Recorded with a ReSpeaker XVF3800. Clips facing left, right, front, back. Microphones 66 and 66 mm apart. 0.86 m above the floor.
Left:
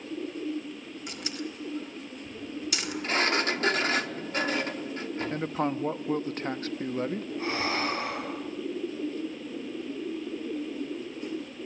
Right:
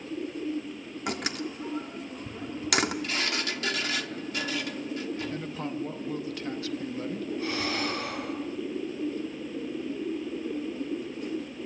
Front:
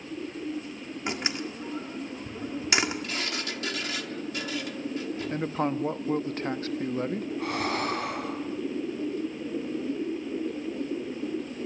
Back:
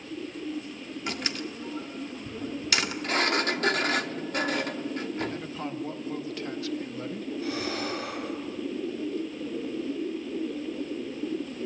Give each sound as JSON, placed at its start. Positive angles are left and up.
{"t": 1.1, "sound": "a door slam", "azimuth_deg": -70, "distance_m": 1.7}
{"t": 3.0, "sound": "a sliding door", "azimuth_deg": 140, "distance_m": 0.8}
{"t": 5.3, "sound": "a man speaking", "azimuth_deg": 45, "distance_m": 0.9}
{"t": 7.4, "sound": "breathing", "azimuth_deg": 30, "distance_m": 3.5}